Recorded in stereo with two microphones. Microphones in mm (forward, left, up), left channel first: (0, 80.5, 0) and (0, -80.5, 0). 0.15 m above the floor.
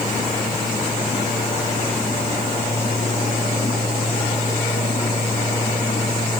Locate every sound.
Only background noise.